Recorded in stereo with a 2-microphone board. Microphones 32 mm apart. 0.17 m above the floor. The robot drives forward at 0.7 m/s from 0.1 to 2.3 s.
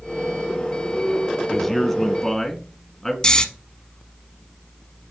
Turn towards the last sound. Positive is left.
turn(degrees=30)  # may be behind; listen again after turning